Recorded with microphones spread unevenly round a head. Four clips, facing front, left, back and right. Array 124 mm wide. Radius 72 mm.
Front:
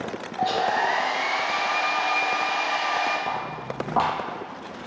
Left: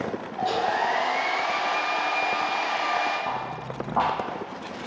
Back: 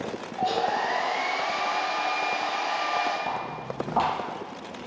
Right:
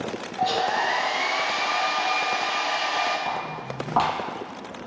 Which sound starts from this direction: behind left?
A hair dryer, at 0.4 s.